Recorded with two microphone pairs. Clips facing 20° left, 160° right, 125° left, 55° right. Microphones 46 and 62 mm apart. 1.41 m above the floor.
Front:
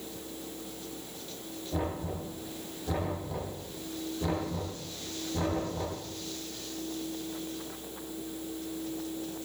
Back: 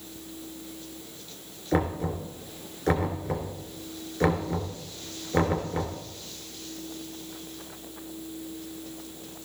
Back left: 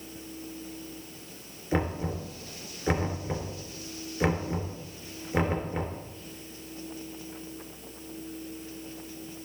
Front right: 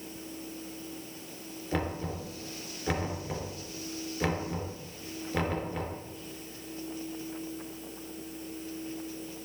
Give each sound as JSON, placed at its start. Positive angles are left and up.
{"t": 1.7, "sound": "knocking", "azimuth_deg": -160, "distance_m": 3.0}